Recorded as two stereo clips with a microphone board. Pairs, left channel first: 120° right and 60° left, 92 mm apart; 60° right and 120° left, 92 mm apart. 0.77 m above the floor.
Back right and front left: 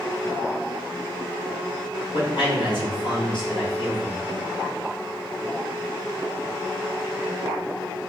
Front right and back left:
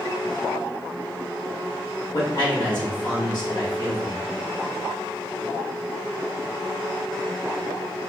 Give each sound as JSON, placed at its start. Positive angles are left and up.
{"t": 2.1, "sound": "a man speaking", "azimuth_deg": -95, "distance_m": 1.4}